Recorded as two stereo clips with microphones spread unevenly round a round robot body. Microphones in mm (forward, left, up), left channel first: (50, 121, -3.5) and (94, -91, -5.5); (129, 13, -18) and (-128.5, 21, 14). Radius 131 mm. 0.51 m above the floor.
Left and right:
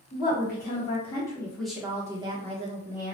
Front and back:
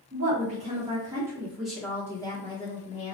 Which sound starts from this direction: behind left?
A woman speaking, at 0.1 s.